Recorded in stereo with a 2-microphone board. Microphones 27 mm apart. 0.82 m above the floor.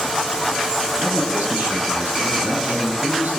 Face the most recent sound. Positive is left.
turn(degrees=-80)